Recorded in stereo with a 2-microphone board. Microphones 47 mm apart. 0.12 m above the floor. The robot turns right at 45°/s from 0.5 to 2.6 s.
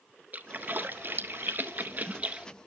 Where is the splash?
40° right (ahead or behind), 0.6 m; by 2.5 s 25° right (ahead or behind), 0.6 m.